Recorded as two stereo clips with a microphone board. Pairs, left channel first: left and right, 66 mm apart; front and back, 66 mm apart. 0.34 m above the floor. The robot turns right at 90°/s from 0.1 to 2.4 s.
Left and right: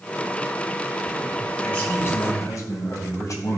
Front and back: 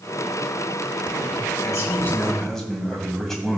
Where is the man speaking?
10° left, 2.5 m; by 3.6 s 85° left, 2.5 m.